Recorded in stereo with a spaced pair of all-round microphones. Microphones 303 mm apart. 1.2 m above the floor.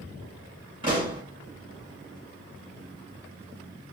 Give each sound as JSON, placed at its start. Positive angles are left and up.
{"t": 0.8, "sound": "a pop", "side_deg": -15, "distance_m": 1.9}